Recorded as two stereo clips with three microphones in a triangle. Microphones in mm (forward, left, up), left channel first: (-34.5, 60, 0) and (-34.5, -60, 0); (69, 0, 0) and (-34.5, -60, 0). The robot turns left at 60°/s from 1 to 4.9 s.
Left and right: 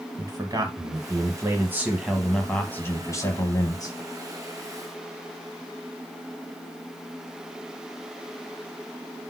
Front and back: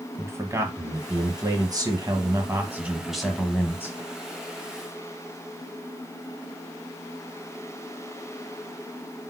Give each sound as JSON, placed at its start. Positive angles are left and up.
{"t": 0.2, "sound": "a man speaking", "azimuth_deg": -105, "distance_m": 1.1}